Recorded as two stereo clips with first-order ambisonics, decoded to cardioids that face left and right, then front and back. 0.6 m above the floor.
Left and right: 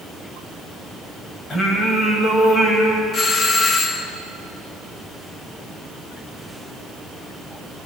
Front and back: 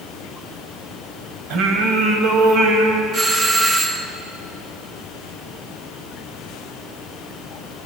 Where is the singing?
155° left, 3.5 m.